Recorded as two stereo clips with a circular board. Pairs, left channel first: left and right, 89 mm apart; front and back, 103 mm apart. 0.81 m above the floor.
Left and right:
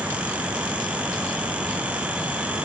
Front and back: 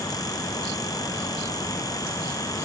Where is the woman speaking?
No woman speaking in this recording.